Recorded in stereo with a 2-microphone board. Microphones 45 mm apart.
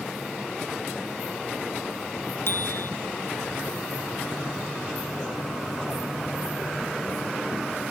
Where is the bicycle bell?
55° left (ahead or behind).